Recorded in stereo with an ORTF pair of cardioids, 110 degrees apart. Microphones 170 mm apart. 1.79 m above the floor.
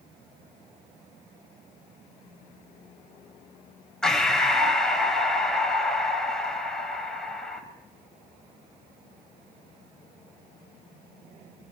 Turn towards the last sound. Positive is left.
turn(degrees=5)